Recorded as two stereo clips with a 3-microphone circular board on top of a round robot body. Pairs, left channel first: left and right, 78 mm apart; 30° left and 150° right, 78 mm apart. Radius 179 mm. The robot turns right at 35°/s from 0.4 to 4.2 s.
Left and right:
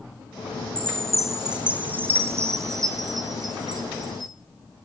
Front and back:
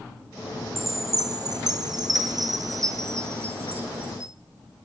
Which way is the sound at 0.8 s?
165° left.